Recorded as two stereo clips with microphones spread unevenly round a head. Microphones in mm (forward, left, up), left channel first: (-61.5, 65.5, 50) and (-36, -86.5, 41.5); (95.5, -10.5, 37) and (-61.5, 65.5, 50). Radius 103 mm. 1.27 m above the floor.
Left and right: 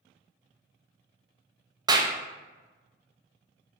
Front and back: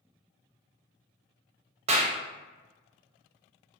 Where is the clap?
145° right, 0.5 m.